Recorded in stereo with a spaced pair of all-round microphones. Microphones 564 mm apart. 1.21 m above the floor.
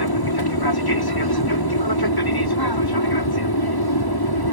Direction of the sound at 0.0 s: 40° left (ahead or behind).